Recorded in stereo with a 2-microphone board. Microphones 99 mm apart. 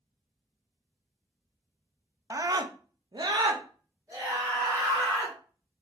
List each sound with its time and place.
2.3 s a scream: 30° right (ahead or behind), 0.6 m; by 5.4 s 25° right (ahead or behind), 2.0 m